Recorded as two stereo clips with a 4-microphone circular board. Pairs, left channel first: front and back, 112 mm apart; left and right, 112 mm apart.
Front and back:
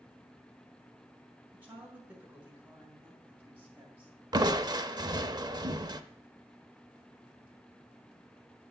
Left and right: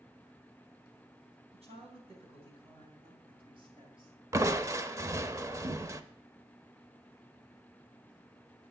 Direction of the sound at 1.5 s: 105° right.